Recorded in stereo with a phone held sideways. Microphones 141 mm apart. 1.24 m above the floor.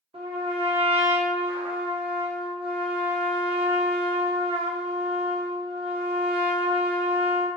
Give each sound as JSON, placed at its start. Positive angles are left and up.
{"t": 0.1, "sound": "a trumpet", "side_deg": -45, "distance_m": 0.8}